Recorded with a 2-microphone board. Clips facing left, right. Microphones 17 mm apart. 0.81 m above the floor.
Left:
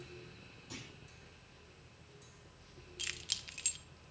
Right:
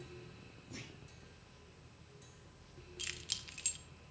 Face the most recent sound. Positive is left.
turn(degrees=10)  # may be behind; listen again after turning